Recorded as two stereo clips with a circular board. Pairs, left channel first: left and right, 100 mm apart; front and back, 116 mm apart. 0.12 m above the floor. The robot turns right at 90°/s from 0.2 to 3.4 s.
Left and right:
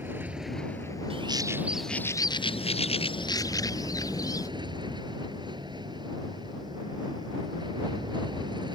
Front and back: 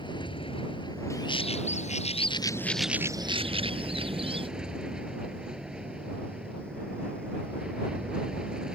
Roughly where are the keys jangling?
No keys jangling in this recording.